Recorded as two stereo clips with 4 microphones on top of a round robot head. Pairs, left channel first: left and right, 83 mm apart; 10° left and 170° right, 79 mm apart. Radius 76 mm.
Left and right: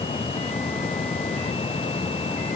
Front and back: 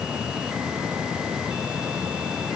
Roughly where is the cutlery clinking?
No cutlery clinking in this recording.